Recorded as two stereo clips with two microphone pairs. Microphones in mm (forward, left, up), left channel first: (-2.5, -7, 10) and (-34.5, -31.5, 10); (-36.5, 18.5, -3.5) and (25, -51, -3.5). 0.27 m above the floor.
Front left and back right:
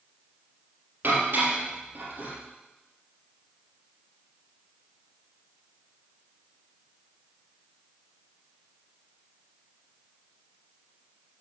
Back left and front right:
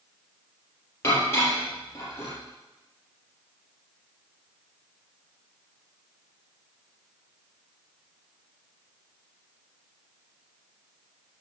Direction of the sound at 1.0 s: 165° right.